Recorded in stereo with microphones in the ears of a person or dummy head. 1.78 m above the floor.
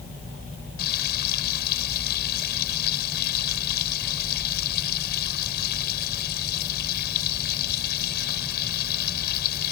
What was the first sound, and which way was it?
Frying, 55° left (ahead or behind).